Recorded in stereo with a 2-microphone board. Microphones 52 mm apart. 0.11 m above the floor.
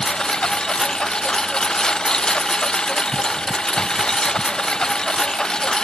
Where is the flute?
I don't hear a flute.